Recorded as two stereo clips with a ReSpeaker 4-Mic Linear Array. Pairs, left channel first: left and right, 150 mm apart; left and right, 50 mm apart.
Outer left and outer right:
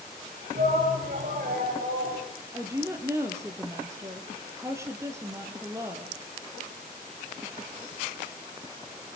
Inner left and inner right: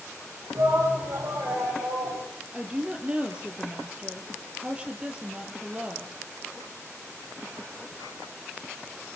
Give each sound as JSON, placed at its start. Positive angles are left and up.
{"t": 0.6, "sound": "a shout", "side_deg": -75, "distance_m": 8.5}
{"t": 2.5, "sound": "a woman speaking", "side_deg": -15, "distance_m": 4.0}